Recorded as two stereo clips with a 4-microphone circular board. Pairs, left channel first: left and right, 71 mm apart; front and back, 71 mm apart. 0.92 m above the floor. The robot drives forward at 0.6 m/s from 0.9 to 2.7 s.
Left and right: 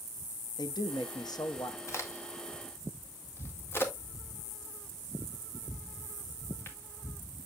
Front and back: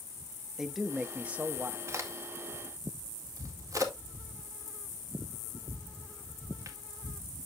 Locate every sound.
0.6 s a man speaking: 95° left, 1.0 m; by 1.8 s 125° left, 1.1 m
1.9 s a crack: 135° left, 1.8 m; by 6.8 s 145° left, 2 m